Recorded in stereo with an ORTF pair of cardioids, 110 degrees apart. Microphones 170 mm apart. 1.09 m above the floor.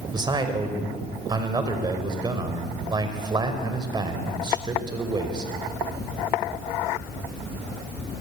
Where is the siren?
No siren in this recording.